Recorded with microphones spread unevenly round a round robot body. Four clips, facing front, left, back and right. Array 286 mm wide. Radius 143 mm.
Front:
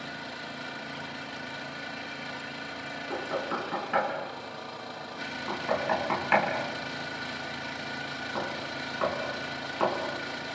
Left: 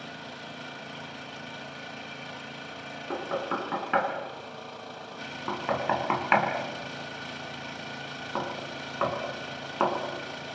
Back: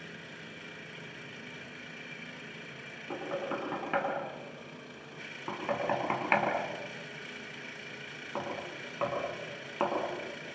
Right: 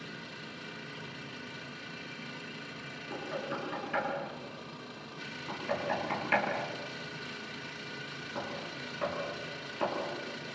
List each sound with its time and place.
0.0 s an engine running: 45° left, 1.2 m
3.1 s knocking: 95° left, 6 m